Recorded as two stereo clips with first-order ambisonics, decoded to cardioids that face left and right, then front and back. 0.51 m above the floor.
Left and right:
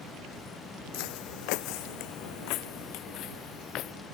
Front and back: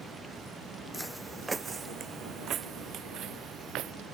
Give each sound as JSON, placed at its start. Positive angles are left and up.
{"t": 0.9, "sound": "footsteps", "azimuth_deg": 85}